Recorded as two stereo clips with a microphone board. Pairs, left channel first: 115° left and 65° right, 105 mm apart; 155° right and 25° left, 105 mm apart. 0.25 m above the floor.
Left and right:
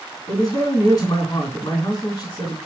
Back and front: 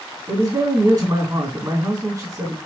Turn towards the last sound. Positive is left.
turn(degrees=70)